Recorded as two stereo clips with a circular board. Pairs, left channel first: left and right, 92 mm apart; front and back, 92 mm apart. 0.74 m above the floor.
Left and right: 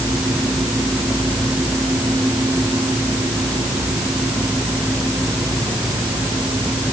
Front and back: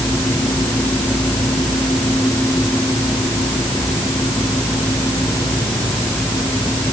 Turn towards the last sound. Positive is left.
No sound to turn to.